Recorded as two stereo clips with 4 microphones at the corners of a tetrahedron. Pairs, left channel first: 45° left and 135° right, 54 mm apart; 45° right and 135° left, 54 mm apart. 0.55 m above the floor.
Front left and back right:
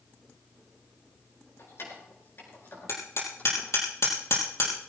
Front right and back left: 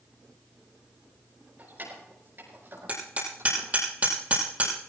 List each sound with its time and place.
1.6 s keys jangling: 80° left, 7 m; by 3.7 s 105° left, 7.5 m
2.9 s hammering: 75° left, 5.5 m